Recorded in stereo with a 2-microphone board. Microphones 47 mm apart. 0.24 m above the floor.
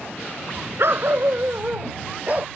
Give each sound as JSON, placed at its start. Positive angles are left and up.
{"t": 0.8, "sound": "a dog barking", "side_deg": -65}